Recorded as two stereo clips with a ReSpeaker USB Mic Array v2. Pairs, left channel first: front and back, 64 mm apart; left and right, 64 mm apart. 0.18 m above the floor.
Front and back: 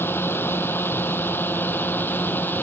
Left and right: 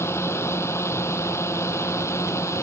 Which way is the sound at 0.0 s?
55° left.